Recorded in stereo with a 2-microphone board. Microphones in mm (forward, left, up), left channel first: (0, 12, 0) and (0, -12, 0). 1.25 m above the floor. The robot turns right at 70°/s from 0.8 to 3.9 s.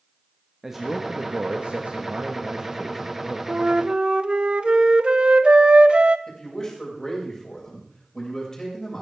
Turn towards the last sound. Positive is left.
turn(degrees=20)  # may be behind; listen again after turning